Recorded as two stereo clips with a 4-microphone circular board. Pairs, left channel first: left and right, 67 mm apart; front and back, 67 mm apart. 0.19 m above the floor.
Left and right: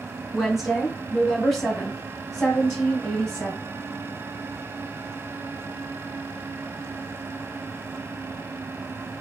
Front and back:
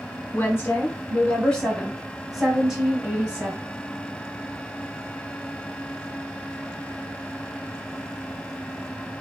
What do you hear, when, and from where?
0.3 s a woman speaking: straight ahead, 1.6 m; by 3.6 s 155° left, 1.5 m